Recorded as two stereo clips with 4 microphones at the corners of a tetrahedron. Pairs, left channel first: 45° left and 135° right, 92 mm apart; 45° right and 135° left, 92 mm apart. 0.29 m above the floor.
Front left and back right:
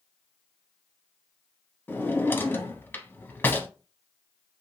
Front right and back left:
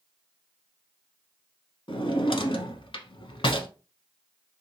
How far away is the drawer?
About 0.6 m.